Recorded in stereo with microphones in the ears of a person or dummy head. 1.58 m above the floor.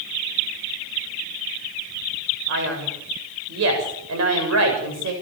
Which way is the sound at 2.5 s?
65° right (ahead or behind).